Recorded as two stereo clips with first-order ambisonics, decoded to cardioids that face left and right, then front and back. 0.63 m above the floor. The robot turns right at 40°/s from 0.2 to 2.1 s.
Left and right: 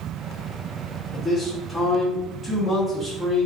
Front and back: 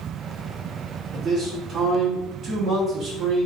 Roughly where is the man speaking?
Behind left.